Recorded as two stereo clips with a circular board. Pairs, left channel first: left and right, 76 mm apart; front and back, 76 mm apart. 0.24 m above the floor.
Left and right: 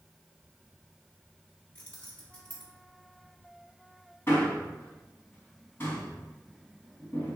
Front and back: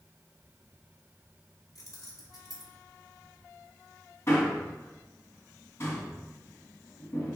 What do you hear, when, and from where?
1.8 s keys jangling: 25° left, 1.5 m
4.3 s a man speaking: 40° left, 1.6 m